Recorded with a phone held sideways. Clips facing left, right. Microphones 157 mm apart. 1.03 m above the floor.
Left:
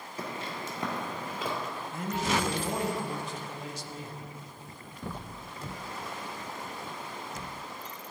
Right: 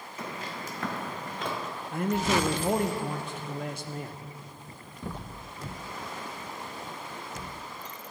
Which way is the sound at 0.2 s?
35° left (ahead or behind).